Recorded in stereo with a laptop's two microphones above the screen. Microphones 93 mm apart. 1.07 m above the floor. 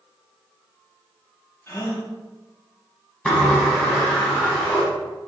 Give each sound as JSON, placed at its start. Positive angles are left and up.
{"t": 1.7, "sound": "a gasp", "side_deg": 30, "distance_m": 0.6}
{"t": 3.2, "sound": "a sliding door", "side_deg": 15, "distance_m": 1.1}